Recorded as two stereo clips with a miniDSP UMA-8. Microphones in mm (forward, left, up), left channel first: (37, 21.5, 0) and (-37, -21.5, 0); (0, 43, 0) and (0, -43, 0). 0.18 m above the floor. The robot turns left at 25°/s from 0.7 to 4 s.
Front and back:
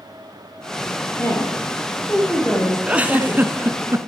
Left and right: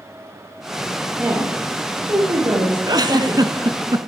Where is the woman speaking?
20° right, 5.5 m; by 3.7 s 85° right, 5.5 m.